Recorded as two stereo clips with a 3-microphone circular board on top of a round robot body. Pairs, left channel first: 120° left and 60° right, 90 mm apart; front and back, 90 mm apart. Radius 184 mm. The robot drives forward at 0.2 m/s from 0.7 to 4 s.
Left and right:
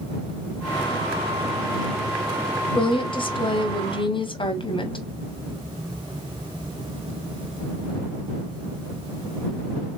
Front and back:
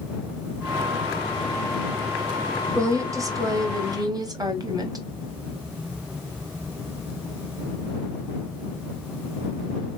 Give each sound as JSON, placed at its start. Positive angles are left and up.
{"t": 2.8, "sound": "a woman speaking", "azimuth_deg": 125, "distance_m": 1.2}